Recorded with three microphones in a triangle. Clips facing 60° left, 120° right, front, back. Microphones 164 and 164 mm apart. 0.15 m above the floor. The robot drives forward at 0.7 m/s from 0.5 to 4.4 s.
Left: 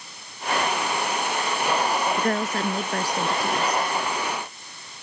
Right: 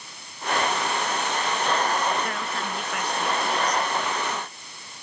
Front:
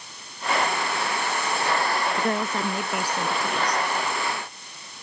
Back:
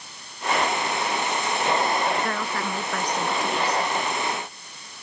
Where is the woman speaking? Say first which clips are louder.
Left 6 dB, front 2 dB; 55° left; by 3.8 s 100° left.